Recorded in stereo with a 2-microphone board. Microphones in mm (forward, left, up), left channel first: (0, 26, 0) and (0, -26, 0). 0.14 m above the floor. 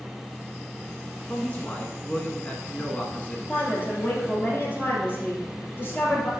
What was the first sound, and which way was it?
A man speaking, 25° left (ahead or behind).